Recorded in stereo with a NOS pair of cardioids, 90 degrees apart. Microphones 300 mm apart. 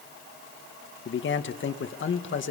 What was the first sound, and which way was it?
A man speaking, 40° left.